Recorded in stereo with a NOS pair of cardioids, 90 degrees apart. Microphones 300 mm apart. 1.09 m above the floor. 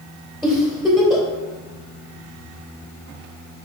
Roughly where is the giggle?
Ahead.